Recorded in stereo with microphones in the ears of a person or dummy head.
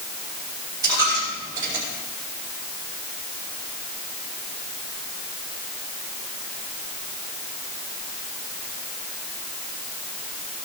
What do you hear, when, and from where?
0.8 s a dropped coin: 20° right (ahead or behind), 4 m